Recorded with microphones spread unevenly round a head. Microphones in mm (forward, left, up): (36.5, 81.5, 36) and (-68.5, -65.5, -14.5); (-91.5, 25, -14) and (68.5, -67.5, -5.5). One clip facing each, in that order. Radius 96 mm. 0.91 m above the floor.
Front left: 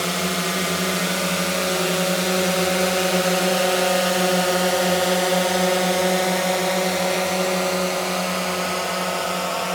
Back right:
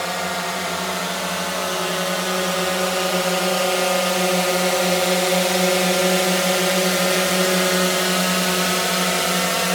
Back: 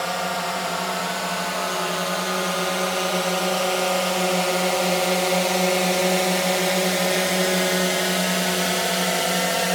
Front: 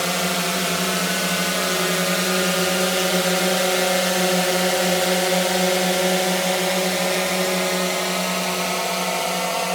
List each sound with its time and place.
0.0 s a drone: straight ahead; by 9.8 s 145° right